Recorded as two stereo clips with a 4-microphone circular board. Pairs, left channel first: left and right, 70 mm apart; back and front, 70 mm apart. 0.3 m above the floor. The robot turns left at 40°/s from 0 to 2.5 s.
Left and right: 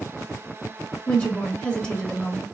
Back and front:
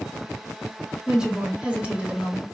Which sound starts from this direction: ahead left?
A woman speaking, at 1.1 s.